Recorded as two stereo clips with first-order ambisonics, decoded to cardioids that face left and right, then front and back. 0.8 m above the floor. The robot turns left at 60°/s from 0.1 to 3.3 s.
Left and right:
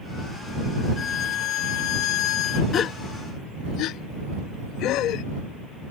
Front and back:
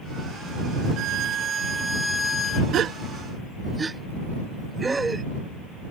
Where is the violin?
150° left; by 2.6 s 50° left.